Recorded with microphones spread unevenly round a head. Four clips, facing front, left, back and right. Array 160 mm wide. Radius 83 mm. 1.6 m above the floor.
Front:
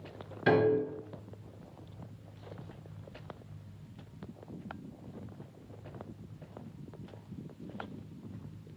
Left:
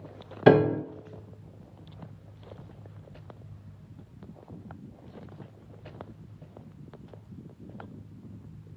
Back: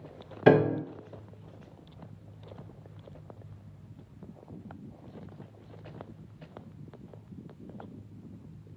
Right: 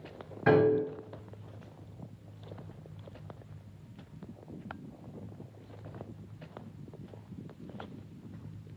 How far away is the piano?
About 0.6 m.